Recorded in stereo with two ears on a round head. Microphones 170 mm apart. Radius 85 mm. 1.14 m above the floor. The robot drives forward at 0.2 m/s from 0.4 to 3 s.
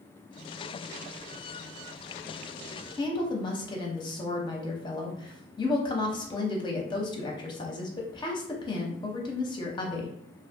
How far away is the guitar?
No guitar in this recording.